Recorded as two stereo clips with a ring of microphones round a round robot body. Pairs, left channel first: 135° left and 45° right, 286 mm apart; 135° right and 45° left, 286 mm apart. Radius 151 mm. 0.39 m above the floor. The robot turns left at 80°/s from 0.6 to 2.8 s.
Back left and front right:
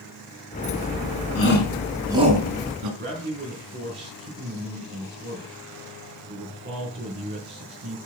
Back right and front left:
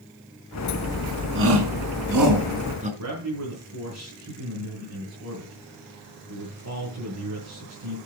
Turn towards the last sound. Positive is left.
turn(degrees=10)